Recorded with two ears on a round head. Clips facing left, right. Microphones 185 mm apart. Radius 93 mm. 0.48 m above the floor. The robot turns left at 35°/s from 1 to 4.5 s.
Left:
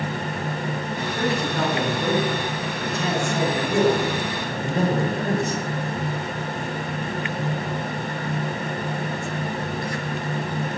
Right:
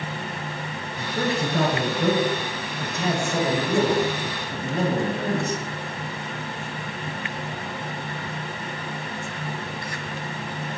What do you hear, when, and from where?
1.0 s a man speaking: 95° right, 7 m; by 5.6 s 145° left, 7 m